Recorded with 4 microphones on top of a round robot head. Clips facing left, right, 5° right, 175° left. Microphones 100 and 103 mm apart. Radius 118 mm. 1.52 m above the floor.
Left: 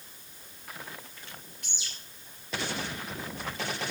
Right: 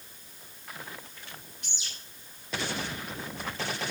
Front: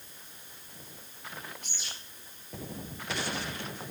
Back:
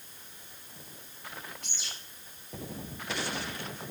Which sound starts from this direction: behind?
A bird, at 1.6 s.